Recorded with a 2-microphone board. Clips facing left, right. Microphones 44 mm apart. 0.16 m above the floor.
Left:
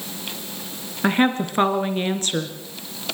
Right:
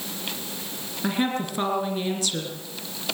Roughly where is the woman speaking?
Left.